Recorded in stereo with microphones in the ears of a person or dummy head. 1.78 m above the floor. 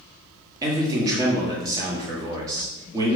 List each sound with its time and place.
0.6 s a man speaking: 15° right (ahead or behind), 1.1 m